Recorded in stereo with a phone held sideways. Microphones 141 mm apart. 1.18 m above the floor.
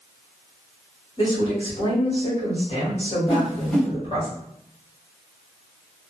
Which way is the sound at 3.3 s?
5° left (ahead or behind).